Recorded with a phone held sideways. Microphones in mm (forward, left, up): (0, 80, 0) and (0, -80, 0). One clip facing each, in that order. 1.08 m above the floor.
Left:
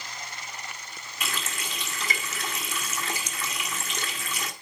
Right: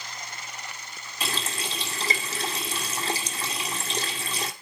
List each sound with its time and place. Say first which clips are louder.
1.2 s a running tap: right 3 dB; 30° right (ahead or behind), 2 m